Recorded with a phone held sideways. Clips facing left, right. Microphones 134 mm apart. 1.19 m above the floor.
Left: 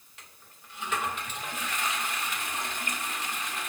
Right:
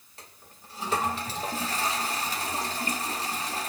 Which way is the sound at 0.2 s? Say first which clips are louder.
Right 4 dB; 35° right (ahead or behind).